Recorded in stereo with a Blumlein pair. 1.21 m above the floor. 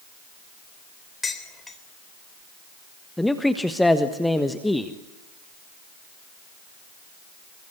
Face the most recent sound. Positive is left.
turn(degrees=5)